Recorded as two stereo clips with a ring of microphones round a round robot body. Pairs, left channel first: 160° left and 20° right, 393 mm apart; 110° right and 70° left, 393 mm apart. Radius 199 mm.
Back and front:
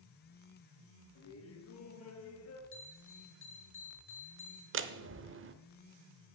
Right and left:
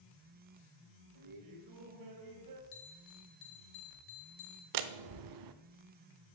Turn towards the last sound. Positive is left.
turn(degrees=35)